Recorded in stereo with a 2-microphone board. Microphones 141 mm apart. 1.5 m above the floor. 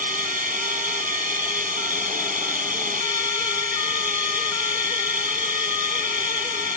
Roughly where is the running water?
Right.